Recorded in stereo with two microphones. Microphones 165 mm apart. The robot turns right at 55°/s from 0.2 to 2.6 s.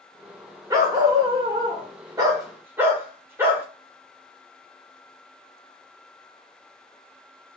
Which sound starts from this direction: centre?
A dog barking, at 0.7 s.